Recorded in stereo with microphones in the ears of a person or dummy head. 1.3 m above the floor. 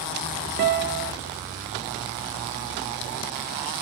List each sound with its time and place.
0.6 s a guitar: 50° right (ahead or behind), 0.6 m